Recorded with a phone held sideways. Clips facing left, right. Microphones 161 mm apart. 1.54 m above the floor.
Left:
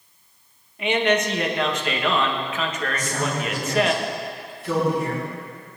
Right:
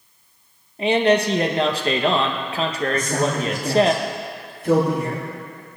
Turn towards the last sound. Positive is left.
turn(degrees=-50)  # may be behind; listen again after turning